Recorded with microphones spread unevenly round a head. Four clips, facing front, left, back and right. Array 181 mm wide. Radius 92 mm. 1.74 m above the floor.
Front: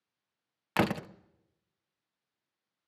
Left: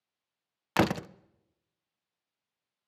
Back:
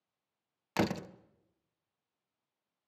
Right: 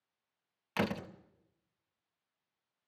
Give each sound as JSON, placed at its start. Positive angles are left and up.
{"t": 0.8, "sound": "a door slam", "azimuth_deg": 90, "distance_m": 0.7}